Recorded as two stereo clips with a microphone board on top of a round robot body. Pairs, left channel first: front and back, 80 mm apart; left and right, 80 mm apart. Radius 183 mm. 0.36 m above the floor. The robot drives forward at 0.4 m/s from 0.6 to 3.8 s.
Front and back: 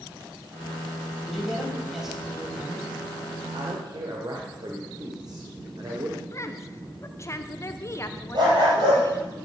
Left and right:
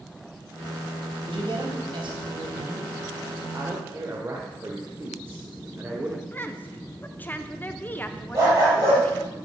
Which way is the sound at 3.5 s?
150° right.